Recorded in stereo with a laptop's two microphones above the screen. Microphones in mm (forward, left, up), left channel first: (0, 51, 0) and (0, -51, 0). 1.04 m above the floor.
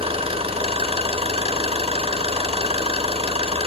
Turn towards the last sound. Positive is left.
turn(degrees=-75)  # may be behind; listen again after turning